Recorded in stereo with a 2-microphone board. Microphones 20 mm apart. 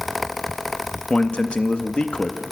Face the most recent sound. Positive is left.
turn(degrees=60)  # may be behind; listen again after turning